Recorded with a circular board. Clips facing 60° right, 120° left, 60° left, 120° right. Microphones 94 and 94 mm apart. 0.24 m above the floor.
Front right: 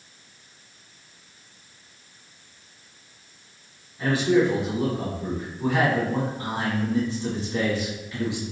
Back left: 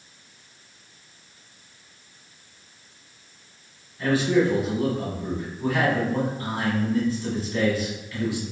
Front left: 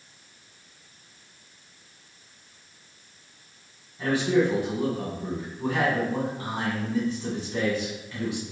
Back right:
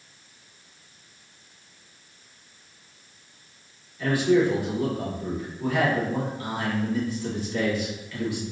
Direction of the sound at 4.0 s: Straight ahead.